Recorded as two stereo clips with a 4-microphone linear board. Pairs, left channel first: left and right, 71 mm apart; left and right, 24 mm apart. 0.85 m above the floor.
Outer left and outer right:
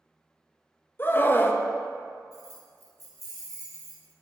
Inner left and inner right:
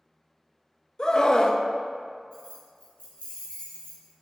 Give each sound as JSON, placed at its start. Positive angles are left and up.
{"t": 1.0, "sound": "a scream", "side_deg": 30, "distance_m": 0.6}
{"t": 2.3, "sound": "keys jangling", "side_deg": 55, "distance_m": 1.9}